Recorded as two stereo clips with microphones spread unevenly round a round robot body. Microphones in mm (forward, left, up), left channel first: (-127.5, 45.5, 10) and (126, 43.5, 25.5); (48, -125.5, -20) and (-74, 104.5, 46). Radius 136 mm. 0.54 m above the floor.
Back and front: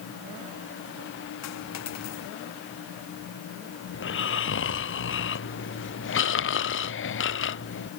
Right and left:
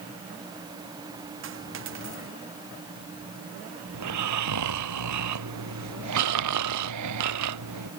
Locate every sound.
1.4 s a dropped coin: 160° left
3.9 s snoring: 140° left